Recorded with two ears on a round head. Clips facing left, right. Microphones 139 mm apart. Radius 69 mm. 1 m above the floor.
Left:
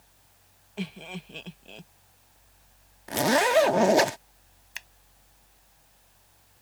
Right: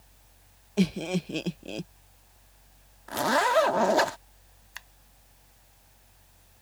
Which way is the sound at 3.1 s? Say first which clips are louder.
Left 2 dB; 20° left (ahead or behind).